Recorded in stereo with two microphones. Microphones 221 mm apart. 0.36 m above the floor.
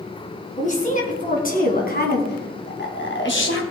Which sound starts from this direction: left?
A woman speaking, at 0.6 s.